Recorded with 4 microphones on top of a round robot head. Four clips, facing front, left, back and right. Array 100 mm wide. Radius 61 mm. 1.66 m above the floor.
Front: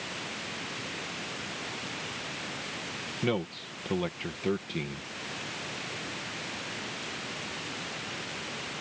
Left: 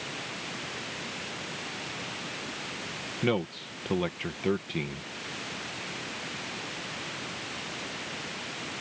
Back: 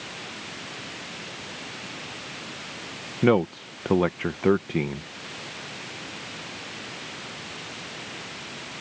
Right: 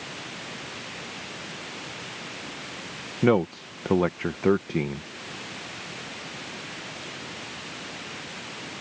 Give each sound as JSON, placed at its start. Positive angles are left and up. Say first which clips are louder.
{"t": 3.2, "sound": "a man speaking", "louder": "right 8 dB, back 11 dB", "azimuth_deg": -140}